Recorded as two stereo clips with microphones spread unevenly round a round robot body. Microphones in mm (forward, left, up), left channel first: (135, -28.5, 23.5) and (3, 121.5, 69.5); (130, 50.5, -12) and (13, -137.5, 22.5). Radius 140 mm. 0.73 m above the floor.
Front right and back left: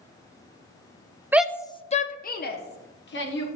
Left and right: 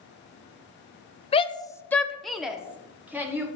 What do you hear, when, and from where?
1.3 s a shout: 40° left, 0.7 m; by 3.5 s 40° right, 2.5 m